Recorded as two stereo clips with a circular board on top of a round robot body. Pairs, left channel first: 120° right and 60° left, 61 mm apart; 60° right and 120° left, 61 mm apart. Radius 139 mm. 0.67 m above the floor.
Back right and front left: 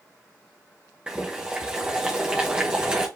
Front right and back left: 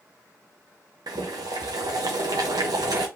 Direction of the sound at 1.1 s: 135° left.